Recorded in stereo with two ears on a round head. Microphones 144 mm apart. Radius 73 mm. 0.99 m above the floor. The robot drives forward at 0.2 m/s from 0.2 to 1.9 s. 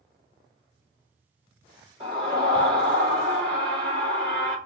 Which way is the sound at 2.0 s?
40° right (ahead or behind).